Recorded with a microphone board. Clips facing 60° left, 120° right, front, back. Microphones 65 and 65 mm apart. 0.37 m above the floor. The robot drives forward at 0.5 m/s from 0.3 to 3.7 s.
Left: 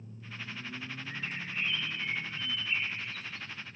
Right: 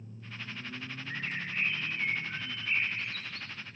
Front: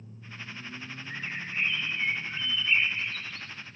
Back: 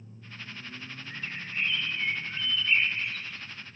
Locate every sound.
1.1 s a bird: 60° right, 1.8 m; by 3.8 s 105° right, 1.6 m